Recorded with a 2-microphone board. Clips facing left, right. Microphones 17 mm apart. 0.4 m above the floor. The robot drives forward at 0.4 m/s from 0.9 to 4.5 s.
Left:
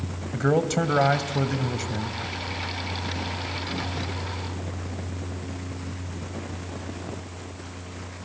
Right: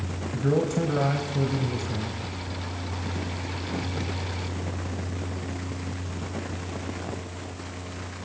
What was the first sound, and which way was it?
A man speaking, 60° left (ahead or behind).